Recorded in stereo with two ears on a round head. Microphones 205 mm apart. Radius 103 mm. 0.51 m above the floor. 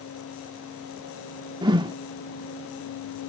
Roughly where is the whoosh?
Centre.